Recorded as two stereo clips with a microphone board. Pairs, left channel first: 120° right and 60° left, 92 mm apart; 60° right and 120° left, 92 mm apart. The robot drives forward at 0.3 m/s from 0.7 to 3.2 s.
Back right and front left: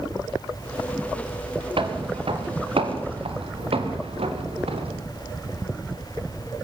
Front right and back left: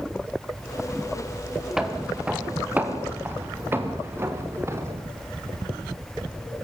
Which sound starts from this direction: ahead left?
Footsteps, at 1.8 s.